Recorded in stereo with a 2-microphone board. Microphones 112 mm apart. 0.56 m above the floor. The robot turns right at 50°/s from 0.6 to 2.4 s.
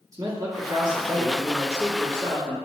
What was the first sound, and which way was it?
A man speaking, 115° right.